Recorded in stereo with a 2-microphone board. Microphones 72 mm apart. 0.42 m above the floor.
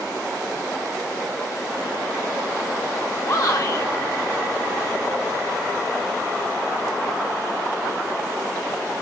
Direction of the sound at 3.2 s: 35° left (ahead or behind).